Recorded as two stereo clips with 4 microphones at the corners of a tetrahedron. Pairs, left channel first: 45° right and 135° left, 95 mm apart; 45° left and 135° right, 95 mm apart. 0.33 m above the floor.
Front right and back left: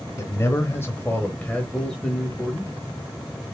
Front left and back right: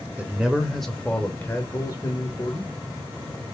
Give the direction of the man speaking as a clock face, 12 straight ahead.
2 o'clock.